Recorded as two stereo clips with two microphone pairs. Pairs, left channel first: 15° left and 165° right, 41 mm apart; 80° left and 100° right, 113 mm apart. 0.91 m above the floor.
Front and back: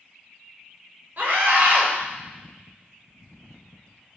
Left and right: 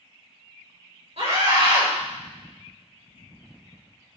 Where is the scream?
120° right, 3 m.